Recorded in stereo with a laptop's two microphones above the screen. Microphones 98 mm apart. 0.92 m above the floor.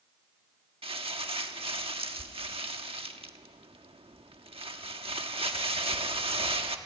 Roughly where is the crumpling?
Right.